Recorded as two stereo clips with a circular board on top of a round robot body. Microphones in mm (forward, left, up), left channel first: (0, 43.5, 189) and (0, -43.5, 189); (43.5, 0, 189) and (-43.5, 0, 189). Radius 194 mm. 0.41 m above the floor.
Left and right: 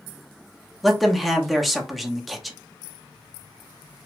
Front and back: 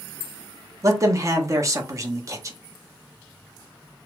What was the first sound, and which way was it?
A man speaking, straight behind.